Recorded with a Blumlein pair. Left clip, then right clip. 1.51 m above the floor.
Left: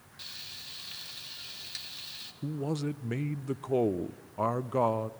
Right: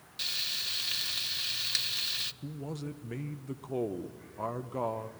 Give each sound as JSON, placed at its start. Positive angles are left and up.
{"t": 0.2, "sound": "frying", "azimuth_deg": -30, "distance_m": 0.6}
{"t": 2.4, "sound": "a man speaking", "azimuth_deg": 20, "distance_m": 0.5}